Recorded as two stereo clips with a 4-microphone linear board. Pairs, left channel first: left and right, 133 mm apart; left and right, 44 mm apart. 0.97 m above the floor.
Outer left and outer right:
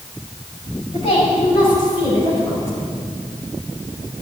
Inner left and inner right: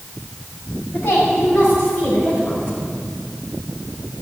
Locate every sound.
0.9 s a woman speaking: 45° left (ahead or behind), 7 m; by 2.9 s 20° left (ahead or behind), 6 m